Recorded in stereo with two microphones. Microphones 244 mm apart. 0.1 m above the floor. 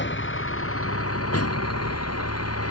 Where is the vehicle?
50° left (ahead or behind); by 2.7 s 70° left (ahead or behind).